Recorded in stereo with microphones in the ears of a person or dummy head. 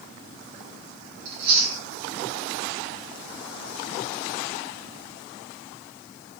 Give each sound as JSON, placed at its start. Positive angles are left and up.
{"t": 1.2, "sound": "chewing", "side_deg": -55, "distance_m": 1.6}